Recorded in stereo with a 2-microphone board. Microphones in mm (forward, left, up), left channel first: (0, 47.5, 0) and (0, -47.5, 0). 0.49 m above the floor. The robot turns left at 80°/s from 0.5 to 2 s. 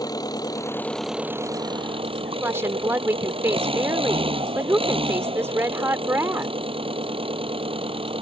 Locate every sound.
0.0 s an engine running: 45° left; by 8.2 s 75° right
2.4 s a woman speaking: 25° right (ahead or behind)